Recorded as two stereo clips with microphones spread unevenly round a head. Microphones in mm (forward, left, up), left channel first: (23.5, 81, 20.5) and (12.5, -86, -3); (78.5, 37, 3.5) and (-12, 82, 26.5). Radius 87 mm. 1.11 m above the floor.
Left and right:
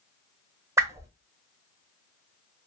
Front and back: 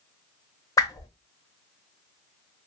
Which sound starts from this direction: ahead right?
A whoosh, at 0.8 s.